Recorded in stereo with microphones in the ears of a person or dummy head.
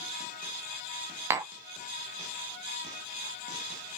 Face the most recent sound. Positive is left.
turn(degrees=-10)  # may be behind; listen again after turning